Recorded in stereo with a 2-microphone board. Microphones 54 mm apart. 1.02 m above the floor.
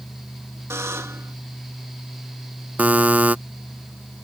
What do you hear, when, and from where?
0.7 s a buzzer: 55° right (ahead or behind)
2.8 s a buzzer: 30° right (ahead or behind)